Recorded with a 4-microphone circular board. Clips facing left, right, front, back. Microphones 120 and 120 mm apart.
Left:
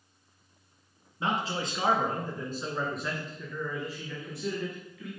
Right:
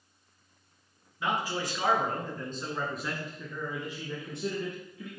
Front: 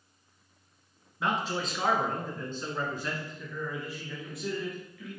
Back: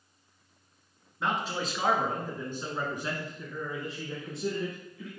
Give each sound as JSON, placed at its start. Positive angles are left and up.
{"t": 1.2, "sound": "a man speaking", "azimuth_deg": 85, "distance_m": 1.6}